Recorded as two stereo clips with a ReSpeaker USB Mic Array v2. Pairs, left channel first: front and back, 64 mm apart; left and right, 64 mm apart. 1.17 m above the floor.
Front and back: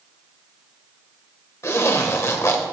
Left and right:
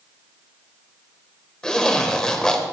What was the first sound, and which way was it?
A zipper, 15° left.